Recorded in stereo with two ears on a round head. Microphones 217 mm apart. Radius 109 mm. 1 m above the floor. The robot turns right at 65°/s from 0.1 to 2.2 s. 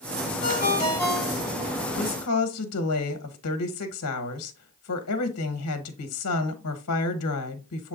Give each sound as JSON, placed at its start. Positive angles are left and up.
{"t": 0.4, "sound": "a ringtone", "azimuth_deg": 125, "distance_m": 2.5}
{"t": 2.0, "sound": "a woman speaking", "side_deg": 55, "distance_m": 0.9}